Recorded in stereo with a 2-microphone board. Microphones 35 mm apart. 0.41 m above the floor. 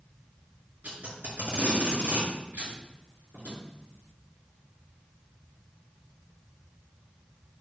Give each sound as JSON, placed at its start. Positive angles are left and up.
{"t": 0.8, "sound": "tape being pulled", "side_deg": -55, "distance_m": 3.0}